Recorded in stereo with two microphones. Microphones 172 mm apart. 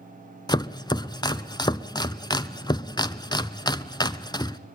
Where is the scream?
I don't hear a scream.